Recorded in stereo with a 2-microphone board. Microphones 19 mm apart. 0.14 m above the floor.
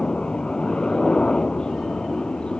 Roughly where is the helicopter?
Left.